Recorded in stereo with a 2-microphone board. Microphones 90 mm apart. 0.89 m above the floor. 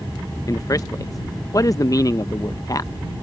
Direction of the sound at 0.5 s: 40° left (ahead or behind).